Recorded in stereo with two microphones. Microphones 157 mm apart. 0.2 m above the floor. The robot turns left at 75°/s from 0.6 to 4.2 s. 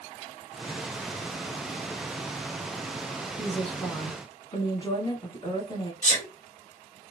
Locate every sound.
3.4 s a woman speaking: 165° right, 1.5 m; by 5.9 s 135° left, 1.5 m
6.0 s a sneeze: 55° left (ahead or behind), 1.7 m